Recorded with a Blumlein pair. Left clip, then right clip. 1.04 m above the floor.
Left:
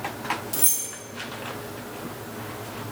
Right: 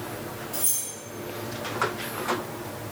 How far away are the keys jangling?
About 0.8 m.